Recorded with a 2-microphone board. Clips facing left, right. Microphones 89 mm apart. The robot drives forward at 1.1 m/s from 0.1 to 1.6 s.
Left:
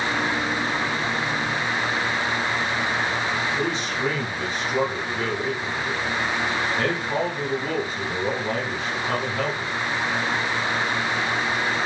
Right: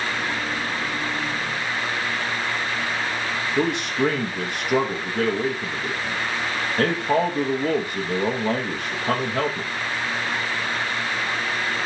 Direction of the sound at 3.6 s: 60° right (ahead or behind).